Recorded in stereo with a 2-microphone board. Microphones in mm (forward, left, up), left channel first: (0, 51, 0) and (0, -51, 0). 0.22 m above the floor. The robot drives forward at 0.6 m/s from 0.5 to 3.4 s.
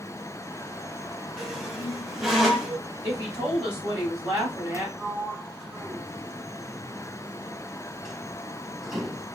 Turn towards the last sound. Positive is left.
turn(degrees=0)  # may be behind; listen again after turning